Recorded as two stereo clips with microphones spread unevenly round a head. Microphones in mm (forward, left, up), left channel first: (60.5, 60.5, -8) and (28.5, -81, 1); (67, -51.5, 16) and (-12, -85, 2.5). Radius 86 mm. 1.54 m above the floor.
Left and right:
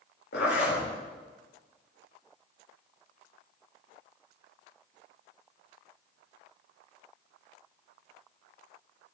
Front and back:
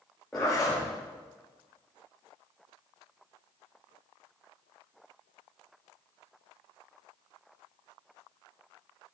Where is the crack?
No crack in this recording.